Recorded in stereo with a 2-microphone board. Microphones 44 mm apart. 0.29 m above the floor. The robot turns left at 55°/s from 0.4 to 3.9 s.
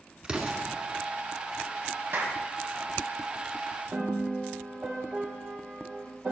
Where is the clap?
55° right (ahead or behind), 1.9 m.